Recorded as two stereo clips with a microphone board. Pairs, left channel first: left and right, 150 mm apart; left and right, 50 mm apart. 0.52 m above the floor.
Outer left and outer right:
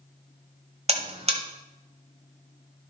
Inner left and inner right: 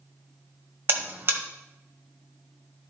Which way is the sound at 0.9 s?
40° right (ahead or behind).